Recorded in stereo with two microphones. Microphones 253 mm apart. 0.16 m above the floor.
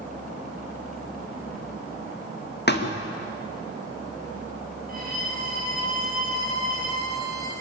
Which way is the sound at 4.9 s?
35° right (ahead or behind).